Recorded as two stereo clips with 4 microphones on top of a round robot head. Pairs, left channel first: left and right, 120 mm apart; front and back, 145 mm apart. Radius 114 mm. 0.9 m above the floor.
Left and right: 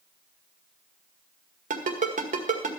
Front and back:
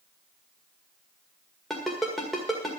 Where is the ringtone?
90° right, 1.9 m.